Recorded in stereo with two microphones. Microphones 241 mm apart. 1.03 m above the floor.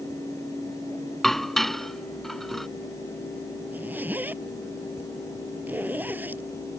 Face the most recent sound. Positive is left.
turn(degrees=-5)  # may be behind; listen again after turning